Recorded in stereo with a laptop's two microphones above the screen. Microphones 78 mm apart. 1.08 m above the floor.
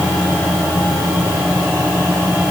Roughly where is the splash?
No splash in this recording.